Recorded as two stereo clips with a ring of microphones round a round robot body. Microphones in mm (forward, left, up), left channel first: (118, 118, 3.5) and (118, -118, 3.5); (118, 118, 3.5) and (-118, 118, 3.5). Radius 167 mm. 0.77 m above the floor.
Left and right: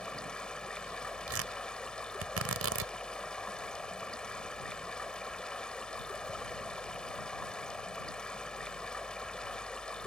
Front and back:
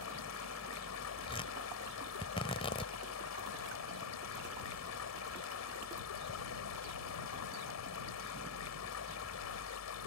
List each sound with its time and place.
0.0 s running water: 5° left
1.3 s tearing paper: 75° right